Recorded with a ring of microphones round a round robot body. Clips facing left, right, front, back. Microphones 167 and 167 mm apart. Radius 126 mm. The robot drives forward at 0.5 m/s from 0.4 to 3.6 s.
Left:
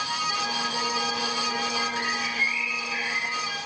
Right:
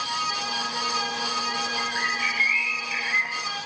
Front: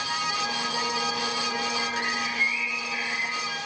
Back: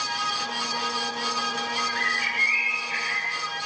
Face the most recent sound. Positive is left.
turn(degrees=-155)